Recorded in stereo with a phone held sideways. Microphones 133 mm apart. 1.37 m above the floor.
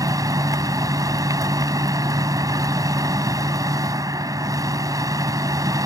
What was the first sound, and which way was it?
A machine running, 30° right (ahead or behind).